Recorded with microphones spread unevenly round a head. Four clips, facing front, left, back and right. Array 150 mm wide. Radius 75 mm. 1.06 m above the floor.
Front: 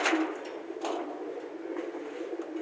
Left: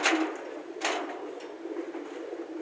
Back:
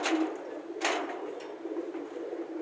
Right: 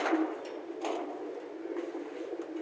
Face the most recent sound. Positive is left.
No sound to turn to.